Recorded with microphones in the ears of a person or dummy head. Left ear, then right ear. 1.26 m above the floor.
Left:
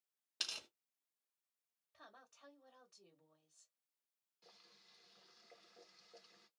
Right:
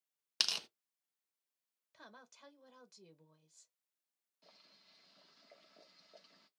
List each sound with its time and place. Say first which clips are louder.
0.4 s tearing paper: right 8 dB; 55° right (ahead or behind), 0.6 m
1.9 s a woman speaking: right 4 dB; 75° right (ahead or behind), 1.1 m
4.4 s boiling: right 1 dB; centre (ahead or behind), 1.0 m